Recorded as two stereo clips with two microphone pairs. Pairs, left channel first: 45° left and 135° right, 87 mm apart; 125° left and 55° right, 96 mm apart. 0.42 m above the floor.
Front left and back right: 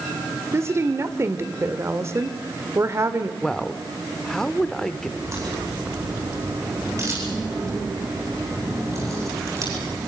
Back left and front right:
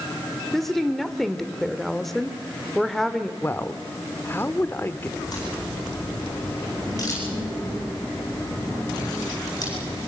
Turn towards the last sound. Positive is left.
turn(degrees=175)